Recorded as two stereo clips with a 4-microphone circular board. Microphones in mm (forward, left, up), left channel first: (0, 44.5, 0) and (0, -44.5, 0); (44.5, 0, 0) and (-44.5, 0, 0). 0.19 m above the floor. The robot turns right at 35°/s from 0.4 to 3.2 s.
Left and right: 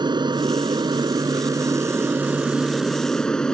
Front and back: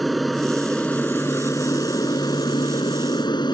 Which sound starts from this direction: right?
An aircraft, at 0.0 s.